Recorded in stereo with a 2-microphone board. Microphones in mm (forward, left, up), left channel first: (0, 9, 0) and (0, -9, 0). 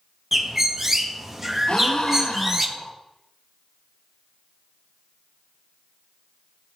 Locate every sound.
0.3 s a bird: 10° right (ahead or behind), 0.7 m
1.7 s a gasp: 70° left (ahead or behind), 1.1 m